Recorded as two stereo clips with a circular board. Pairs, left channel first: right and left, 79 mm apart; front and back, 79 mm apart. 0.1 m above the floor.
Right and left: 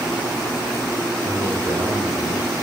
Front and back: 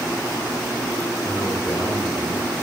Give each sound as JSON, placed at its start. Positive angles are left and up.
{"t": 1.2, "sound": "a man speaking", "azimuth_deg": 60, "distance_m": 5.0}